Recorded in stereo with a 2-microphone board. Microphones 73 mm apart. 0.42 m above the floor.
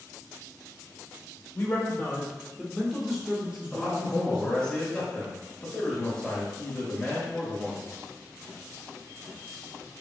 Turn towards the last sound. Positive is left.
turn(degrees=15)  # may be behind; listen again after turning